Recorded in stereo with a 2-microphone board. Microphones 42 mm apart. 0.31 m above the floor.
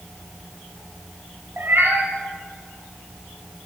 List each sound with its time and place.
1.6 s a cat meowing: 60° right (ahead or behind), 0.9 m